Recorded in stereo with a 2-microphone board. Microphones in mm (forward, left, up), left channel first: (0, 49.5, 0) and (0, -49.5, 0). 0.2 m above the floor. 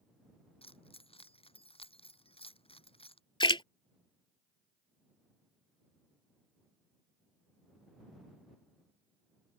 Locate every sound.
0.6 s keys jangling: 75° left (ahead or behind)
3.4 s a splash: 60° left (ahead or behind)